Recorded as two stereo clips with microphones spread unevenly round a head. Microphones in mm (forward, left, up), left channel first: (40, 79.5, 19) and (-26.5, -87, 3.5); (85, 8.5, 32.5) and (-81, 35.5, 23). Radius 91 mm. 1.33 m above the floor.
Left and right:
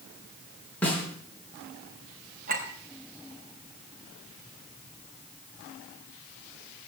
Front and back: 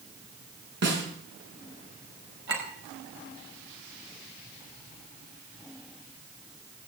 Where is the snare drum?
150° left, 6 m.